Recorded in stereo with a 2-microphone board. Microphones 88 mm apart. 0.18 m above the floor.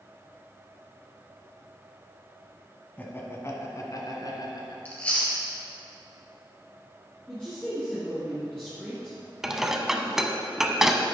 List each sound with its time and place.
3.0 s laughter: 20° left (ahead or behind), 1.2 m; by 4.8 s 55° left (ahead or behind), 2 m
4.8 s chewing: 15° left (ahead or behind), 2.5 m
7.3 s a woman speaking: 15° left (ahead or behind), 3 m
9.4 s dishes clattering: 5° right (ahead or behind), 0.7 m